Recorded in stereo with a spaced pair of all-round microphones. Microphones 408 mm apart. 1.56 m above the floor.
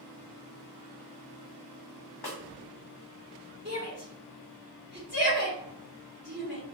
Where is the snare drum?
75° left (ahead or behind), 0.7 m.